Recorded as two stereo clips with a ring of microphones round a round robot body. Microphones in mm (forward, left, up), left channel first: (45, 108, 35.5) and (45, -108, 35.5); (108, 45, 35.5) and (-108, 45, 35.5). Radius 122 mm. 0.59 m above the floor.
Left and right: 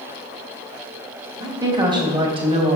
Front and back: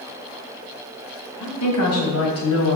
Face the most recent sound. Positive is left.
turn(degrees=-30)